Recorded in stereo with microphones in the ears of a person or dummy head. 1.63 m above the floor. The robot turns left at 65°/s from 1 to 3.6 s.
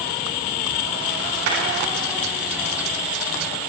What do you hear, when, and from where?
1.5 s a clap: 85° right, 8 m